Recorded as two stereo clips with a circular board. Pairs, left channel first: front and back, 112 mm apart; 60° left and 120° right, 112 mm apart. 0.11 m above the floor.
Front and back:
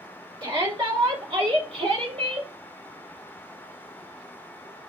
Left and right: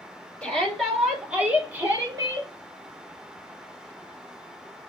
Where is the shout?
140° left, 3.5 m; by 2.5 s 170° right, 3.5 m.